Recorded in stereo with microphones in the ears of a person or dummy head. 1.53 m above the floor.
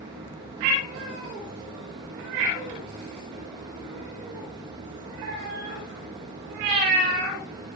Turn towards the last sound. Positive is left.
turn(degrees=-25)  # may be behind; listen again after turning